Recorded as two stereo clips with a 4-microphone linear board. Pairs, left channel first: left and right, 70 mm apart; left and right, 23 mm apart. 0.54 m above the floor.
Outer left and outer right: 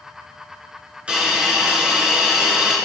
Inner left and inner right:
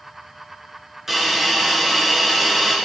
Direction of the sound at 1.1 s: 15° right (ahead or behind).